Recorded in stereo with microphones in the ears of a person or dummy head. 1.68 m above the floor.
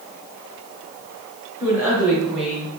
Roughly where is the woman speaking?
Centre.